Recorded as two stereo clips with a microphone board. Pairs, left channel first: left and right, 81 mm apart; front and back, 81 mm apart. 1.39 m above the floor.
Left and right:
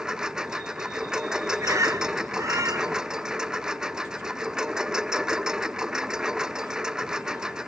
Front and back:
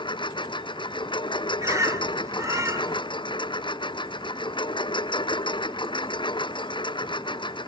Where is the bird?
135° right.